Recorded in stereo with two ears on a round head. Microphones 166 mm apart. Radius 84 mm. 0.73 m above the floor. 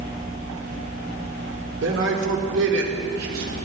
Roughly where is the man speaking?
Right.